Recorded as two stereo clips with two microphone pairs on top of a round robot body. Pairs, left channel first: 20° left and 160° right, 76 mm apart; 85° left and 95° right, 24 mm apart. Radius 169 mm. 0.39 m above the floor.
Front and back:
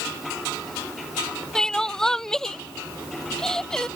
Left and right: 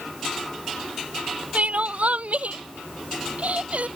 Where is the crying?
60° right.